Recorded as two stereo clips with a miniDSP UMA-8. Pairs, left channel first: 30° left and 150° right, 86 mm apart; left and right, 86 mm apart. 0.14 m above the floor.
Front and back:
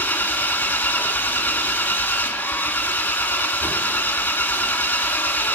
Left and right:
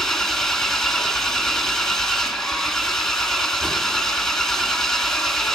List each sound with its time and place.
0.0 s an engine running: 10° left, 1.3 m